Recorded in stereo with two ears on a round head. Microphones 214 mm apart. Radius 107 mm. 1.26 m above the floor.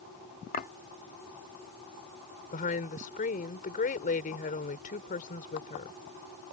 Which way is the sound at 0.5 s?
35° left (ahead or behind).